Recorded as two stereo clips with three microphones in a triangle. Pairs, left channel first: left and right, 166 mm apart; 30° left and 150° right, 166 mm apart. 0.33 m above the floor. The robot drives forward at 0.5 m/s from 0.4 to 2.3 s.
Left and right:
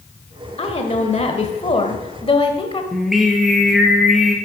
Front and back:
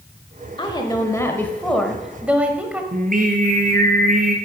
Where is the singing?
Straight behind, 1.6 m.